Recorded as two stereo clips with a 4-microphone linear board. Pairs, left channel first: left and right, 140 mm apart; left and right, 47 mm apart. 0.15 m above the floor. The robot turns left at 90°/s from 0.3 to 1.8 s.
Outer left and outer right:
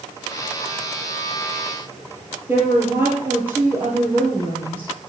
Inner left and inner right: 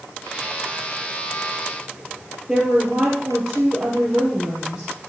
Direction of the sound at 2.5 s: 15° right (ahead or behind).